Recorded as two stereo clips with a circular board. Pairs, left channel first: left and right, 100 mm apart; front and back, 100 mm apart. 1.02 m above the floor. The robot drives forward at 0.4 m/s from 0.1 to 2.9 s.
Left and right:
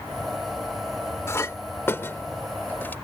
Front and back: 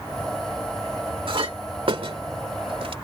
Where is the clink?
150° left; by 3.0 s 160° left.